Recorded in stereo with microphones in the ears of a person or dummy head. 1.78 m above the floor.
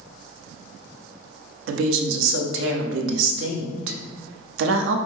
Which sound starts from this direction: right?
A woman speaking, at 1.7 s.